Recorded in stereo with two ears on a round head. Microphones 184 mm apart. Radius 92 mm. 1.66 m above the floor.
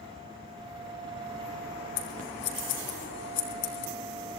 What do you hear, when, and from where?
2.0 s scissors: 60° left (ahead or behind), 4 m